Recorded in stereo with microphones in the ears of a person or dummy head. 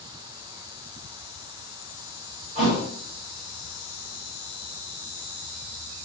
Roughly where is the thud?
Right.